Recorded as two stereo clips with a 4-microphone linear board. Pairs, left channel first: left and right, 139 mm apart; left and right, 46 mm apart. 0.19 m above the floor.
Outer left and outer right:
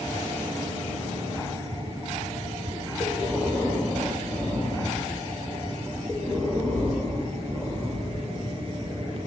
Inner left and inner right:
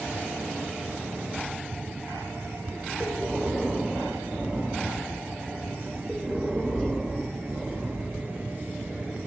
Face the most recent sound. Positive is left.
turn(degrees=5)  # may be behind; listen again after turning